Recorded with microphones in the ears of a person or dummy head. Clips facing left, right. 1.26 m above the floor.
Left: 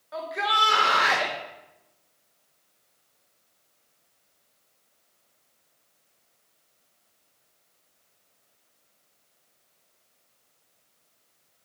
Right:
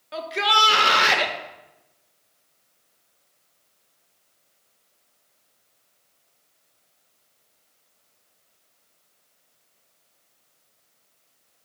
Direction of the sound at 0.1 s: 40° right (ahead or behind).